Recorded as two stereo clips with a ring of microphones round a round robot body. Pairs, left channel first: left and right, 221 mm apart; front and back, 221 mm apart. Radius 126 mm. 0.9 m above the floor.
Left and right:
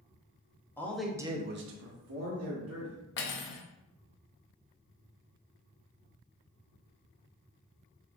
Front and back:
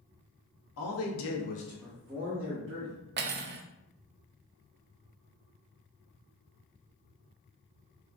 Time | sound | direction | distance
0.8 | a man speaking | 10° left | 1.3 m
3.2 | cutlery clinking | 135° left | 0.6 m